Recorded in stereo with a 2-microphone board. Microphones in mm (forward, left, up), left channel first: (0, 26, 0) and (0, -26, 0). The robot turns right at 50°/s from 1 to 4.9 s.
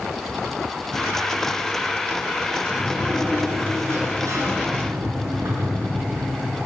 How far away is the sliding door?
About 5 m.